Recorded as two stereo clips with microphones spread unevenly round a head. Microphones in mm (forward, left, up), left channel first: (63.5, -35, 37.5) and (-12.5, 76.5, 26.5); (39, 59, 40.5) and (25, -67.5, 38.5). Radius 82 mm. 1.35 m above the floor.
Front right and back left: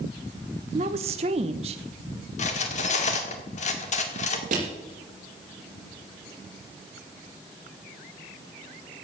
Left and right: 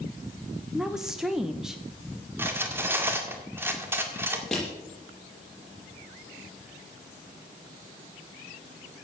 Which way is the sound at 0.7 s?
175° left.